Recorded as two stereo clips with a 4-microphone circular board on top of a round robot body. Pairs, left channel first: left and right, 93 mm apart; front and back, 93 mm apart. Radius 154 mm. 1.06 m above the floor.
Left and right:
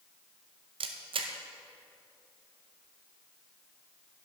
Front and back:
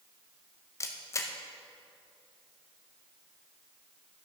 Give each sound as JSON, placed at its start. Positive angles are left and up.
{"t": 0.8, "sound": "a camera shutter", "azimuth_deg": -60, "distance_m": 0.6}